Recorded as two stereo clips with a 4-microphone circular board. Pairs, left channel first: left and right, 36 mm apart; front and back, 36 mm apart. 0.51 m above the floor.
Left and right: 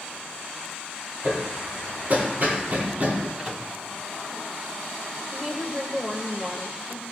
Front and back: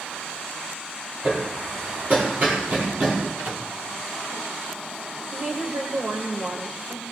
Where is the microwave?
165° right, 2.5 m.